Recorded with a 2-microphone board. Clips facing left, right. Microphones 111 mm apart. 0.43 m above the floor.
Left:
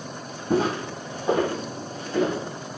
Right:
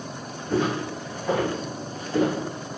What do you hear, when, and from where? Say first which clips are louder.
0.5 s footsteps: left 1 dB; 50° left (ahead or behind), 1.1 m; by 2.4 s 10° right (ahead or behind), 1.4 m